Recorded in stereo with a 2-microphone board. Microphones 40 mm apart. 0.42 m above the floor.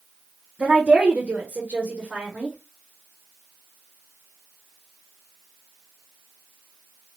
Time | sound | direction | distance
0.6 | a woman speaking | 35° right (ahead or behind) | 1.2 m